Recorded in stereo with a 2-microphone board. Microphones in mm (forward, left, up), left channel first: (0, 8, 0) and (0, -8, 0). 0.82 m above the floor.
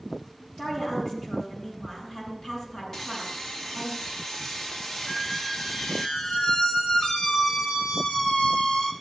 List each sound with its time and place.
0.6 s a woman speaking: 55° left (ahead or behind), 8.5 m
2.9 s sawing: 50° left (ahead or behind), 1.4 m
5.1 s a squeak: 90° left, 2.5 m